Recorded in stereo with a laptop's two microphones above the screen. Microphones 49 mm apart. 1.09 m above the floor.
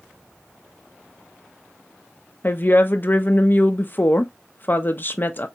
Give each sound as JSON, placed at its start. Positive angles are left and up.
{"t": 2.4, "sound": "a woman speaking", "side_deg": 45, "distance_m": 0.5}